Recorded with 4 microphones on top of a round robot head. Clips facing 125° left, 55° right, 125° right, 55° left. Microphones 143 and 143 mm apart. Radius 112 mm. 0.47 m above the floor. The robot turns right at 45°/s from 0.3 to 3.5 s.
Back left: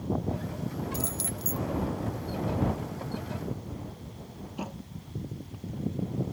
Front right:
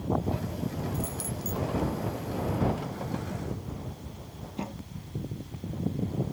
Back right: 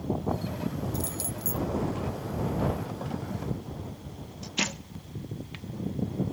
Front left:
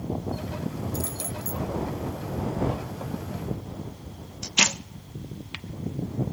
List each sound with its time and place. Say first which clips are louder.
0.9 s keys jangling: front right 1 dB, front left 1 dB; 140° left; by 1.7 s 170° left